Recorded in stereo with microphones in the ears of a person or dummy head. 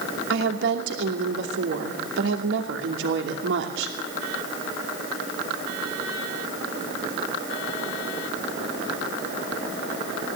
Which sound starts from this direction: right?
A woman speaking, at 0.3 s.